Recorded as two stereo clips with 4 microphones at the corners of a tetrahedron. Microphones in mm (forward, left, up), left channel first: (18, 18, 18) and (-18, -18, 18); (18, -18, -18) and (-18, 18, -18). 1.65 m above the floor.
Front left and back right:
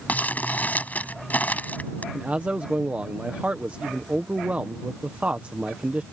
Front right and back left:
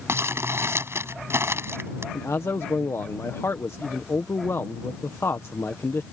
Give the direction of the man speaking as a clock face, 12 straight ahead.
2 o'clock.